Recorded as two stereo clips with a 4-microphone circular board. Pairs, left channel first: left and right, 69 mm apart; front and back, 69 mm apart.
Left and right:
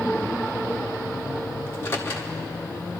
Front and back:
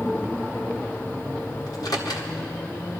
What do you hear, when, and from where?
1.7 s a microwave: 30° left, 1.3 m